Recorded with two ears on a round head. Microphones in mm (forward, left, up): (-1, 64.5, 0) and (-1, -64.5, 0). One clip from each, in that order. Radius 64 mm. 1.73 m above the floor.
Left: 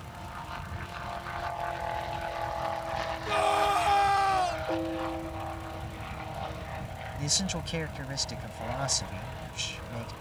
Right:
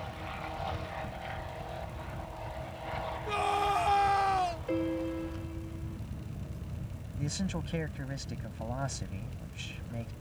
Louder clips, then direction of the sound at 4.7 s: Left 2 dB; 45° right (ahead or behind).